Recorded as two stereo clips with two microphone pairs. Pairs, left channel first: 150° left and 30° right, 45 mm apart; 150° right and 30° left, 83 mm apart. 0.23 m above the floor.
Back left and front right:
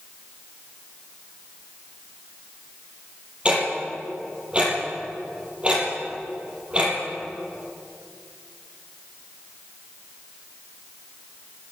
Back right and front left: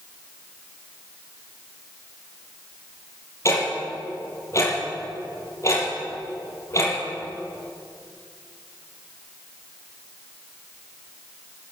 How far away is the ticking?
About 5.5 m.